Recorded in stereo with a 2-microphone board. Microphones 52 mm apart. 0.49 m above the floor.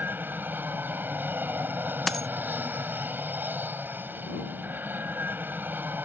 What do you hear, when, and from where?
0.0 s an aircraft: 40° right (ahead or behind)
2.1 s a dropped coin: 5° left (ahead or behind)